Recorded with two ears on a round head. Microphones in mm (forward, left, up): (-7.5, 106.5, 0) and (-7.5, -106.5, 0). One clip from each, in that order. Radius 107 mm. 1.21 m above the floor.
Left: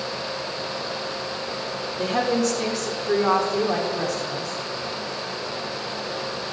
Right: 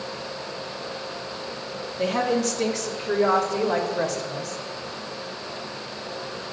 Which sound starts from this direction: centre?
A woman speaking, at 2.0 s.